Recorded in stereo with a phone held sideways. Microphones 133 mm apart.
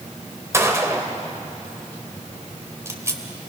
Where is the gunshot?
20° right (ahead or behind), 2.0 m.